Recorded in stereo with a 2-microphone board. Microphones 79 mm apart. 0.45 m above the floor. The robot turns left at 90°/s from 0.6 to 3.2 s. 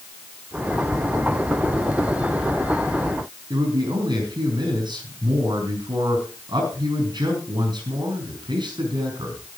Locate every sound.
3.5 s a man speaking: 70° right (ahead or behind), 5.5 m